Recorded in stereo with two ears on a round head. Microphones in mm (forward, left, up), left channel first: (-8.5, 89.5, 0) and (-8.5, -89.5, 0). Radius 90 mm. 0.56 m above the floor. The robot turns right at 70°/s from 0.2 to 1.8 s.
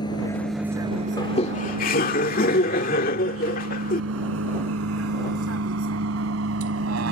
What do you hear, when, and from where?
0.0 s a vehicle: 25° left (ahead or behind); by 7.1 s 75° right (ahead or behind)
1.2 s laughter: 30° left; by 4.0 s 75° left